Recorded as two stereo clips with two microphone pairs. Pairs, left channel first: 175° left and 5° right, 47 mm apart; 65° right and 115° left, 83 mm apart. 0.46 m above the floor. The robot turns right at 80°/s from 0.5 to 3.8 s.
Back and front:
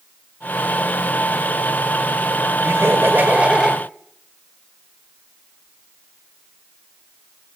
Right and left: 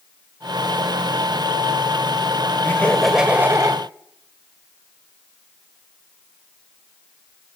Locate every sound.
2.6 s laughter: 10° right, 1.6 m; by 3.8 s 80° left, 1.6 m